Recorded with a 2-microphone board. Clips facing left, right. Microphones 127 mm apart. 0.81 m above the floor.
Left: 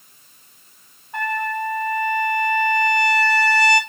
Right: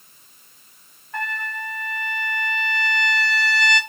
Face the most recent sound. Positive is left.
turn(degrees=20)  # may be behind; listen again after turning